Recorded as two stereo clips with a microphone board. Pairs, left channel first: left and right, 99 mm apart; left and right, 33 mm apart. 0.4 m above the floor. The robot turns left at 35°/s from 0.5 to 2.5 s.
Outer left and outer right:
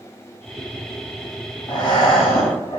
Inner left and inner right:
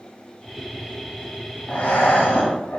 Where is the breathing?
50° left (ahead or behind), 0.9 m; by 2.8 s 65° left (ahead or behind), 0.9 m.